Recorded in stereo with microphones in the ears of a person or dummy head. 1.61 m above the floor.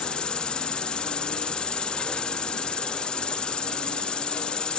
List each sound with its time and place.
0.0 s an insect: 5° left (ahead or behind)